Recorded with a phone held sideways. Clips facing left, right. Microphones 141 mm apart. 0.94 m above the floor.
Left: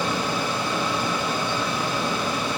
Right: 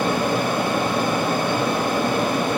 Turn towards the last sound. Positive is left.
turn(degrees=-50)  # may be behind; listen again after turning